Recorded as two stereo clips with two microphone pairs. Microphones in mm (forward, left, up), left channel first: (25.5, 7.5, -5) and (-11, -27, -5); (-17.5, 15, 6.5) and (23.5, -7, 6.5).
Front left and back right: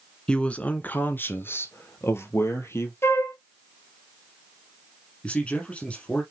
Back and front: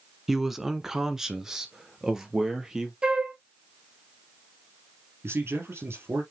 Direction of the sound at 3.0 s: 40° left.